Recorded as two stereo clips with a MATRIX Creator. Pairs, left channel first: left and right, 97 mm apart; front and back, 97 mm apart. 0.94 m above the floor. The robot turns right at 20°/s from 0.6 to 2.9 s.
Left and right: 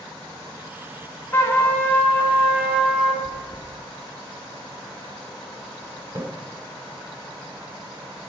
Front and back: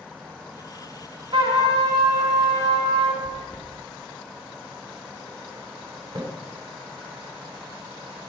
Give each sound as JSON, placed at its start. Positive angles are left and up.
{"t": 1.3, "sound": "a trumpet", "azimuth_deg": 150, "distance_m": 1.9}
{"t": 3.2, "sound": "chewing", "azimuth_deg": -80, "distance_m": 1.6}
{"t": 6.2, "sound": "a splash", "azimuth_deg": -135, "distance_m": 1.9}